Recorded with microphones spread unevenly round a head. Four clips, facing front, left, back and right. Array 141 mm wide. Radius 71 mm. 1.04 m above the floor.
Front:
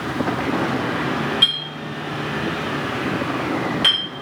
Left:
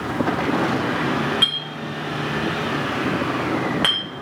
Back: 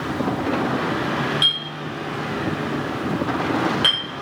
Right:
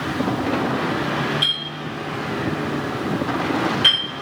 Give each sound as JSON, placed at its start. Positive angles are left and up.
{"t": 1.4, "sound": "a clink", "azimuth_deg": 125, "distance_m": 1.0}